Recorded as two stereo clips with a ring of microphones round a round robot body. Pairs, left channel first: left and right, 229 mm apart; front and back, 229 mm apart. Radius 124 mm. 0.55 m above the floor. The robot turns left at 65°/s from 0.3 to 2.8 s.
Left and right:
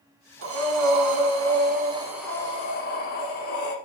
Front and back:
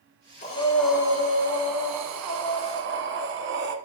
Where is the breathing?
60° right, 1.4 m; by 3.8 s 145° left, 1.4 m.